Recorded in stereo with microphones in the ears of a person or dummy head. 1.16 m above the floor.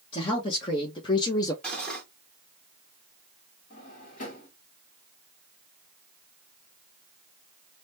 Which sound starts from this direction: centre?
Cutlery clinking, at 1.6 s.